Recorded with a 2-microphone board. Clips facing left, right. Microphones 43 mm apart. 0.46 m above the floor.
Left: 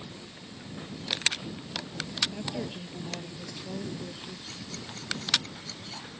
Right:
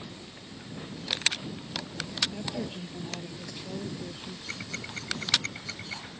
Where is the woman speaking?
5° left (ahead or behind).